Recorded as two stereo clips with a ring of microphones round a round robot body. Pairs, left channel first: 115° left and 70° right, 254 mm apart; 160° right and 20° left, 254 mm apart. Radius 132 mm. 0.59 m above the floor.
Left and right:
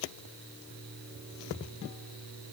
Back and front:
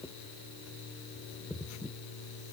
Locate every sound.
Only background noise.